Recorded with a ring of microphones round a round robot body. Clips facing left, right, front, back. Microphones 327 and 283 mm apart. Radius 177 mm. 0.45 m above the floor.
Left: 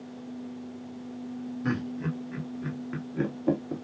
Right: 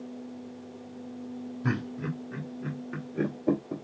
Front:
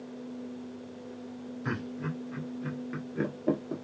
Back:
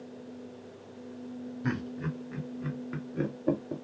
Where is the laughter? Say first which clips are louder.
Left 1 dB, back 2 dB; 170° left, 1.6 m; by 3.8 s 85° left, 1.4 m.